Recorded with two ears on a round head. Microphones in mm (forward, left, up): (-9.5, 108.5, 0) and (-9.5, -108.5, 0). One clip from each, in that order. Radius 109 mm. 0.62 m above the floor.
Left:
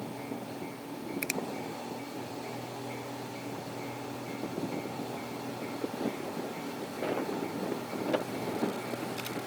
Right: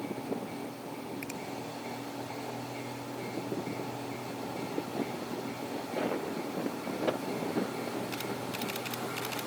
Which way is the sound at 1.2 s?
45° left (ahead or behind).